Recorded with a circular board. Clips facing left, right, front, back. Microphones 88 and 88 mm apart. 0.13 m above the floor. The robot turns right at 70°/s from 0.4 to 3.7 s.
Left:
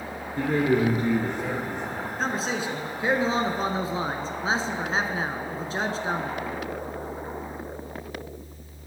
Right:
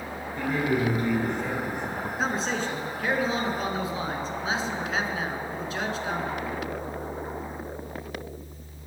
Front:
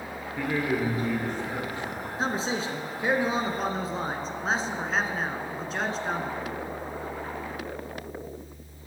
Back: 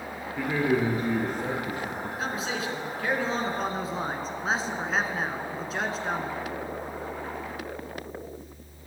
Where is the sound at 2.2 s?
10° right, 1.4 m; by 6.3 s 95° left, 1.4 m.